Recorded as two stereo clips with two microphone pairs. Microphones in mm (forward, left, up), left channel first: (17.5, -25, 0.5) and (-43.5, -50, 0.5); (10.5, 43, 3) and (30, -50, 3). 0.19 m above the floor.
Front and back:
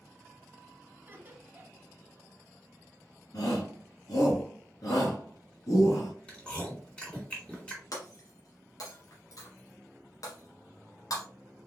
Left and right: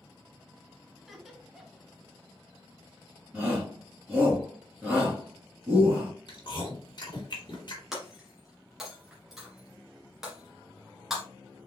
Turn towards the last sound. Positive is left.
turn(degrees=10)